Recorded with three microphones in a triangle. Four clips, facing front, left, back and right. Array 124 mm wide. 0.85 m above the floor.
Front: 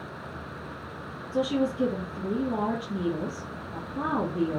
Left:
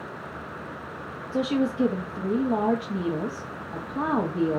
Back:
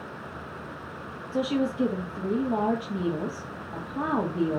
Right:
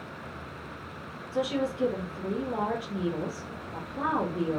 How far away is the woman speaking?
About 1.4 m.